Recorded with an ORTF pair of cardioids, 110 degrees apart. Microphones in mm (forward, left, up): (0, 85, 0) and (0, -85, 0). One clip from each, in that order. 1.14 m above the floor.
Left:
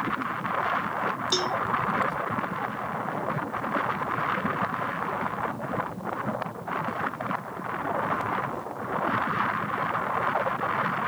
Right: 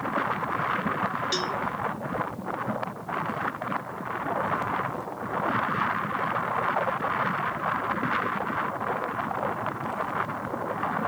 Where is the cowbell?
15° left.